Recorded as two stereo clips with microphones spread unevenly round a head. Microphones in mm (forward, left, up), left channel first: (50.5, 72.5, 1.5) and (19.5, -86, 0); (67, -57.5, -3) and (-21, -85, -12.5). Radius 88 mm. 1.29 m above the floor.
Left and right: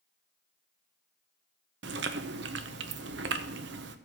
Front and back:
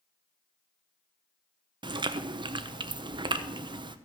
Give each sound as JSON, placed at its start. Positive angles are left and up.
{"t": 1.8, "sound": "chewing", "azimuth_deg": -130, "distance_m": 0.8}